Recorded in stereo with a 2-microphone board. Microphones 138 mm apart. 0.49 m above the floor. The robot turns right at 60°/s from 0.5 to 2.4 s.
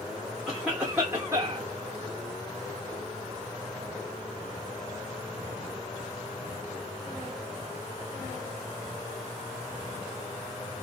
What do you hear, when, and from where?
0.5 s a cough: straight behind, 0.7 m; by 1.7 s 110° right, 0.7 m